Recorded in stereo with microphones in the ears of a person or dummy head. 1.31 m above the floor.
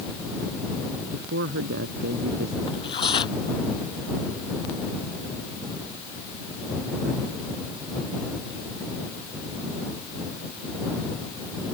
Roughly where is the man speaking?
Right.